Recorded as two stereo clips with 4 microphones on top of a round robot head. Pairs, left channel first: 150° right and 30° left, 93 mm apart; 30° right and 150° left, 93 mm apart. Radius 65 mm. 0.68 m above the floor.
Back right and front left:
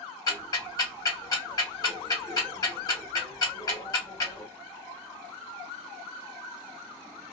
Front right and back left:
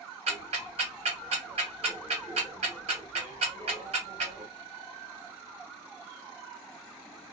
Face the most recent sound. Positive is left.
turn(degrees=155)